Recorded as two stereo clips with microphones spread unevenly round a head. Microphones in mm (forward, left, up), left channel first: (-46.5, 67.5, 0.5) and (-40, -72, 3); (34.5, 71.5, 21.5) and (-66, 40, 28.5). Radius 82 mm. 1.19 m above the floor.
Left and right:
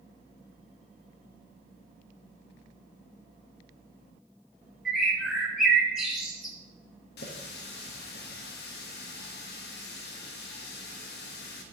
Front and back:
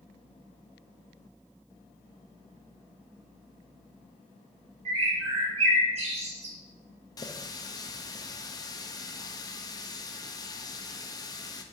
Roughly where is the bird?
Behind.